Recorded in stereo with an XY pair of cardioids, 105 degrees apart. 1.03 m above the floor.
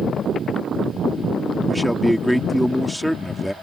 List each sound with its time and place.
1.7 s a man speaking: 5° left